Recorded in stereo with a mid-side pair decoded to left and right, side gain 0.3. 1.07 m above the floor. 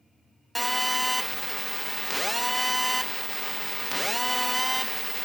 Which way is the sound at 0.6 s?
Straight ahead.